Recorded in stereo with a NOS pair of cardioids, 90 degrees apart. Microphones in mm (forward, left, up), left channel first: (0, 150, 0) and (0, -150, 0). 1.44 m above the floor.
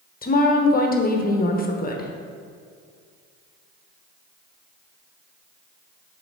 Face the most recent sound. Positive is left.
turn(degrees=30)